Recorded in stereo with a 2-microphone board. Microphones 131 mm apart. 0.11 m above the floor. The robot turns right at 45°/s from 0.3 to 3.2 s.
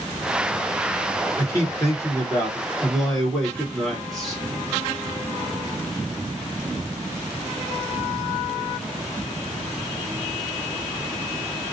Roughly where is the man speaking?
Left.